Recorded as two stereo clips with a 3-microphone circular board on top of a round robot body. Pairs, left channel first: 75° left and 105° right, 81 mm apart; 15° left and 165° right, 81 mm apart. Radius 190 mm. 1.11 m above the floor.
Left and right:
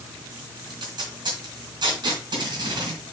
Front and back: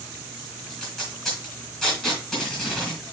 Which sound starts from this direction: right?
Tape being pulled, at 0.7 s.